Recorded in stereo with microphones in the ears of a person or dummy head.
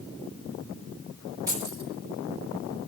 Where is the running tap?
No running tap in this recording.